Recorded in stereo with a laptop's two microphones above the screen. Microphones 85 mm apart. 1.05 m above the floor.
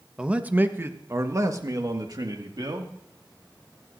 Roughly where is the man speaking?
Centre.